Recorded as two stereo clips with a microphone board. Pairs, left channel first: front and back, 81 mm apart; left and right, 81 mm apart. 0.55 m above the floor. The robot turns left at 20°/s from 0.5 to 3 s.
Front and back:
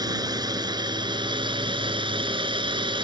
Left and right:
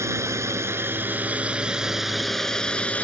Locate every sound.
0.0 s a drone: 145° right; by 3.0 s 165° left